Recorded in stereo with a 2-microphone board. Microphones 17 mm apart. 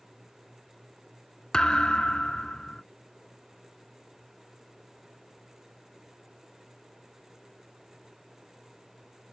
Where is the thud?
60° left (ahead or behind).